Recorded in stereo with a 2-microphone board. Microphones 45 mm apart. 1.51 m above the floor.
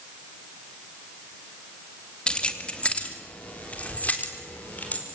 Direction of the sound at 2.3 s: 25° left (ahead or behind).